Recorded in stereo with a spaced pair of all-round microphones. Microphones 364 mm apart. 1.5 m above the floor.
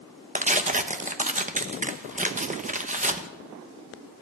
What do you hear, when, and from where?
0.3 s tearing paper: 20° right (ahead or behind), 0.9 m